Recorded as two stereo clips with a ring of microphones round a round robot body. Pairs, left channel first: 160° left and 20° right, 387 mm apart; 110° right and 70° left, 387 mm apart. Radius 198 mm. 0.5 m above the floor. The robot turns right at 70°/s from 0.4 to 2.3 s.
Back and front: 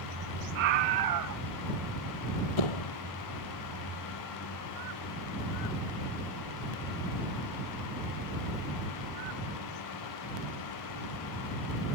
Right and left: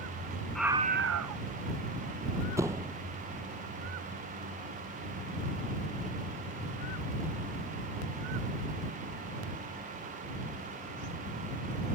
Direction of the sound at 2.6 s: 150° left.